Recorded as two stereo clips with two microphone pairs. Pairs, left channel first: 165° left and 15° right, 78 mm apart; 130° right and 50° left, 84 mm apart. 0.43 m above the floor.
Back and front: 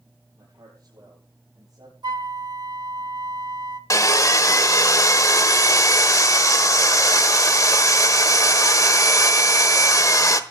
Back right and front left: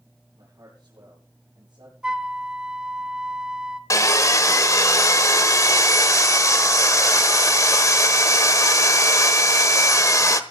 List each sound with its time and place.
0.3 s a man speaking: 15° left, 9 m; by 1.9 s 20° left, 8.5 m
2.0 s a flute: 25° right, 0.9 m
3.9 s sawing: 165° right, 1.2 m